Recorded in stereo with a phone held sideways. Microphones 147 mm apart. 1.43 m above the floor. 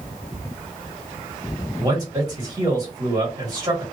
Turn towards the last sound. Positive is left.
turn(degrees=-25)  # may be behind; listen again after turning